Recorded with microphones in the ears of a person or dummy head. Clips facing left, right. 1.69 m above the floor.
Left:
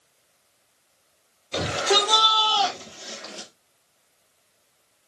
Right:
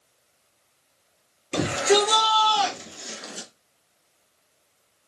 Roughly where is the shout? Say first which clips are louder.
Right 4 dB; right.